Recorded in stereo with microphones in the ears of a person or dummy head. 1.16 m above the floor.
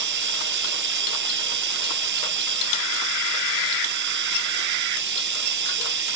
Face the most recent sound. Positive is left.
turn(degrees=-60)  # may be behind; listen again after turning